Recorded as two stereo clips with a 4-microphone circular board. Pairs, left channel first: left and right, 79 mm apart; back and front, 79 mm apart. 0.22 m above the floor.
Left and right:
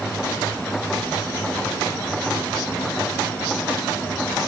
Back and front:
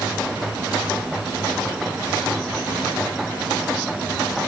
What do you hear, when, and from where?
Only background noise.